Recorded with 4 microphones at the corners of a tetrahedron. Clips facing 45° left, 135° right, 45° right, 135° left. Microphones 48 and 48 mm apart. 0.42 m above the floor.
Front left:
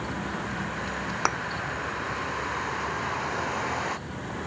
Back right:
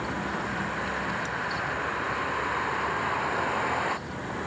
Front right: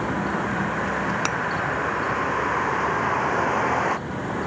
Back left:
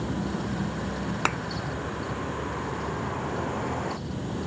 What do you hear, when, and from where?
0.0 s a vehicle: 50° right
1.2 s a thud: 55° left